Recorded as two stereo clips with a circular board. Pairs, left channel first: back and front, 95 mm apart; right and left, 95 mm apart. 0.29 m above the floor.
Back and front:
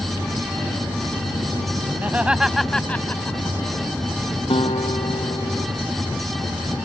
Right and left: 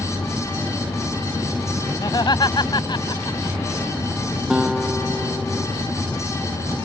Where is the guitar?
175° left.